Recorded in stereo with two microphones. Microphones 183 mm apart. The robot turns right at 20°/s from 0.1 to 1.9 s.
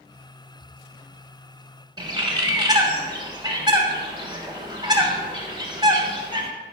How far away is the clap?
I don't hear a clap.